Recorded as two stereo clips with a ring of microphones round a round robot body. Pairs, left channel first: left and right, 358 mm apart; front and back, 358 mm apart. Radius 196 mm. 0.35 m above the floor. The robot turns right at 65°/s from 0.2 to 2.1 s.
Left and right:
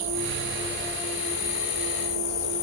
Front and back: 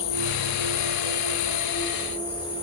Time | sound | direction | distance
0.0 | an insect | 35° right | 4 m